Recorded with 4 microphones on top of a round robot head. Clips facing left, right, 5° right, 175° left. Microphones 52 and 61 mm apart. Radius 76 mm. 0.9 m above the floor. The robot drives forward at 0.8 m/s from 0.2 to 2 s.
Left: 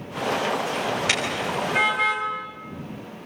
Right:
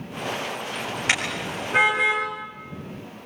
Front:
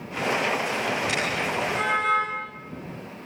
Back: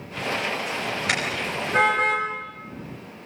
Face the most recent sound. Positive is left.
turn(degrees=-155)